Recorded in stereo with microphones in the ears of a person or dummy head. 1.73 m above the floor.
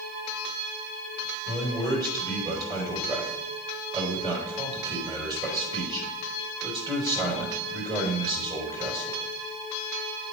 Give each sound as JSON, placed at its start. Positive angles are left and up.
{"t": 1.4, "sound": "a man speaking", "side_deg": -30, "distance_m": 2.5}